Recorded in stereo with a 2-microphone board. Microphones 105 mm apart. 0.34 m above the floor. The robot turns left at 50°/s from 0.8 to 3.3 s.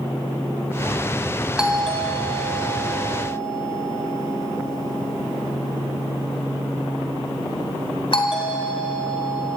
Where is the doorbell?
10° right (ahead or behind), 2.5 m; by 9.6 s 60° left (ahead or behind), 2.5 m.